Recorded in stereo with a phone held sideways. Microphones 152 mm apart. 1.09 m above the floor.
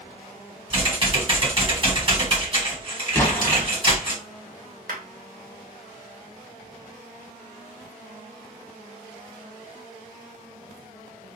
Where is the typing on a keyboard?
35° right (ahead or behind), 1.4 m.